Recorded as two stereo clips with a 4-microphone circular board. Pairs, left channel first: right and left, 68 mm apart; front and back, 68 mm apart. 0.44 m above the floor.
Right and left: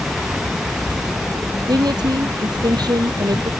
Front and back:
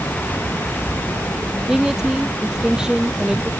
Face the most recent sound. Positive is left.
turn(degrees=100)